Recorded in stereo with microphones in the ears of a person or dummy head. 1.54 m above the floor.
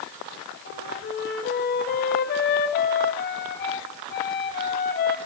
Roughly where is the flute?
Left.